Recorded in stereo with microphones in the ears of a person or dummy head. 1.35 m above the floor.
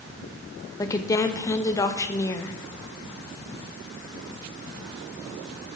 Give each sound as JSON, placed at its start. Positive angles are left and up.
{"t": 0.8, "sound": "a woman speaking", "side_deg": 15, "distance_m": 0.6}